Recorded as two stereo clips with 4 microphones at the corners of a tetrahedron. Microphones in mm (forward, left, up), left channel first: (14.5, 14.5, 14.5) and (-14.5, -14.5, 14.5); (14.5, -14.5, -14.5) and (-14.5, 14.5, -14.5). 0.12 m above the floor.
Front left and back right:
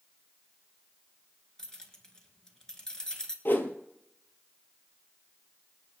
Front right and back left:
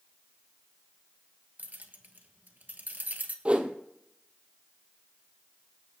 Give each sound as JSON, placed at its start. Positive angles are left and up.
{"t": 1.6, "sound": "keys jangling", "azimuth_deg": 115, "distance_m": 1.5}
{"t": 3.5, "sound": "a whoosh", "azimuth_deg": 75, "distance_m": 1.5}